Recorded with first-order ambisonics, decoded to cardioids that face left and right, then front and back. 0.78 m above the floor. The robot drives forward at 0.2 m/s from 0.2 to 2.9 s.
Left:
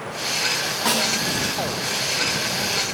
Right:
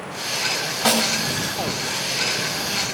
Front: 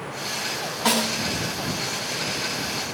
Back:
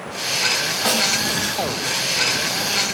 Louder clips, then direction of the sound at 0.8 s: Right 2 dB, back 2 dB; 110° right.